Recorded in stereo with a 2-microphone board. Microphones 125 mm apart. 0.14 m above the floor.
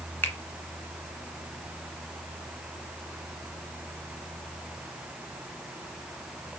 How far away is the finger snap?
About 1.3 m.